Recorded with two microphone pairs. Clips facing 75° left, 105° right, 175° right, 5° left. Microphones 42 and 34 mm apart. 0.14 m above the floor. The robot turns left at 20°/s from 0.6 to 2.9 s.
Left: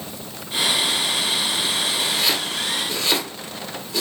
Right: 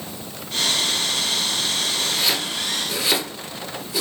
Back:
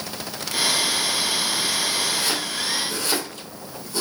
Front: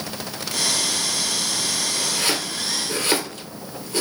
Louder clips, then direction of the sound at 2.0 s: Left 1 dB, even; 5° right.